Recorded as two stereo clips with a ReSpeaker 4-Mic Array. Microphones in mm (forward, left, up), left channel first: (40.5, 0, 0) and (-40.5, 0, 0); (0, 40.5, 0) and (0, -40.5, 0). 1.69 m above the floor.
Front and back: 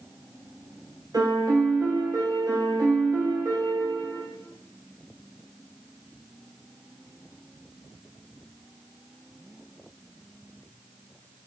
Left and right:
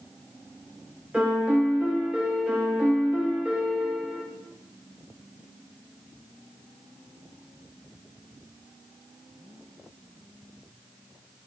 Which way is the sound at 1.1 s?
165° right.